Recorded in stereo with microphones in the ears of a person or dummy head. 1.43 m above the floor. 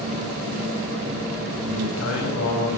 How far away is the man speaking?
About 7 m.